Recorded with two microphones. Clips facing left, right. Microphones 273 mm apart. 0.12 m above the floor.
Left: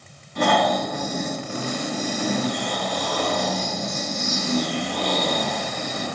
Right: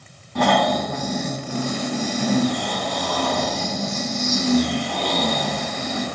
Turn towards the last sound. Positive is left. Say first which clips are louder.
# right 2 dB
turn(degrees=-75)  # may be behind; listen again after turning